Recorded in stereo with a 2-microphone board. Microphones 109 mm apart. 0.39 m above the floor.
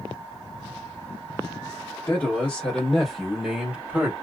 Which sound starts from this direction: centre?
A man speaking, at 2.1 s.